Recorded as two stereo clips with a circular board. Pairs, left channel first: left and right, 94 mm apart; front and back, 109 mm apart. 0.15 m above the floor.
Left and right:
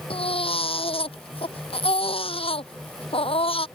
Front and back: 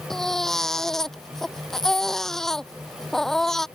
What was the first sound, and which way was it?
A baby crying, 85° left.